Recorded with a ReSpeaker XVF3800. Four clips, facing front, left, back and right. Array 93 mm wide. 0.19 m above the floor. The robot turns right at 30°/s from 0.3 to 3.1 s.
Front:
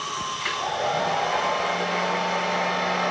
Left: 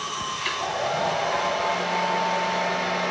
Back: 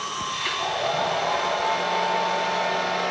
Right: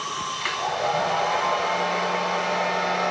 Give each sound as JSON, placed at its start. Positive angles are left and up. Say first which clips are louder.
{"t": 0.4, "sound": "a hair dryer", "louder": "right 2 dB, even", "azimuth_deg": -105, "distance_m": 1.6}